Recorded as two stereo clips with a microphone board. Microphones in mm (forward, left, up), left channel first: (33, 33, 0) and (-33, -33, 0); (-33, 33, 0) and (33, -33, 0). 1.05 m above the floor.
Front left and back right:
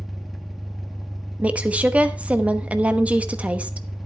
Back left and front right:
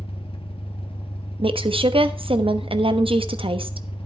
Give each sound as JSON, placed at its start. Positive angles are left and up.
{"t": 0.0, "sound": "an engine running", "azimuth_deg": 140, "distance_m": 1.3}
{"t": 1.4, "sound": "a woman speaking", "azimuth_deg": -60, "distance_m": 1.0}